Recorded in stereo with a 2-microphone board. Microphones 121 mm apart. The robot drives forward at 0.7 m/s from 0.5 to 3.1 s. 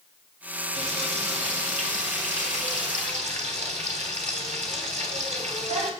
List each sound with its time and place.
0.8 s frying: 65° right (ahead or behind), 3 m; by 5.9 s 75° right (ahead or behind), 3 m